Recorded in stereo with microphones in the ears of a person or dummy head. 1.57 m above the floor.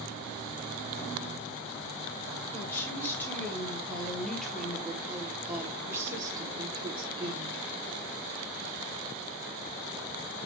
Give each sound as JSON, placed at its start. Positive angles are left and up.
{"t": 2.5, "sound": "a woman speaking", "side_deg": 15, "distance_m": 4.0}